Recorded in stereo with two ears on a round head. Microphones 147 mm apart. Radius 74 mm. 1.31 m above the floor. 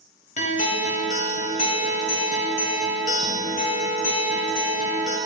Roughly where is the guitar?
Left.